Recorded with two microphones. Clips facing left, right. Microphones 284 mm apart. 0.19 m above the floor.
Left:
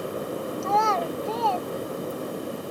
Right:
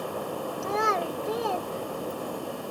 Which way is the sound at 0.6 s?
20° right (ahead or behind).